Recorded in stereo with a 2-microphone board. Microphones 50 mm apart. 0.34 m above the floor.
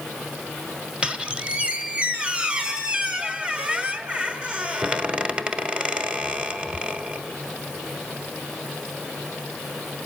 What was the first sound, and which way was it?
A squeak, 20° right (ahead or behind).